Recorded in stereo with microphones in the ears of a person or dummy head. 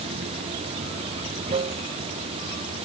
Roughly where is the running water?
Right.